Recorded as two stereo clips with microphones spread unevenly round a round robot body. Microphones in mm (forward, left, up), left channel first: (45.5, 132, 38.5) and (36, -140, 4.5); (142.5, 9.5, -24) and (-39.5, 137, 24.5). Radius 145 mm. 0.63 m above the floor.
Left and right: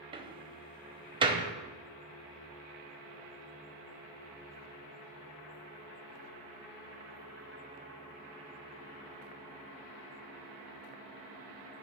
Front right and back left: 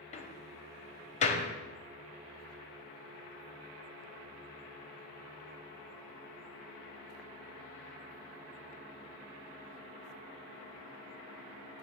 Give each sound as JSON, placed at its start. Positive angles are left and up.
{"t": 0.1, "sound": "a door slam", "azimuth_deg": -40, "distance_m": 0.7}